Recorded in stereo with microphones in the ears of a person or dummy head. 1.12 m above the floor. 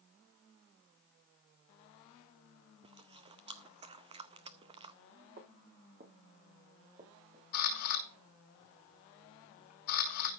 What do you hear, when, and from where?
2.8 s chewing: 30° right (ahead or behind), 0.6 m
5.4 s footsteps: 55° right (ahead or behind), 3 m; by 7.5 s 30° right (ahead or behind), 4 m
7.5 s a camera shutter: 55° left (ahead or behind), 4 m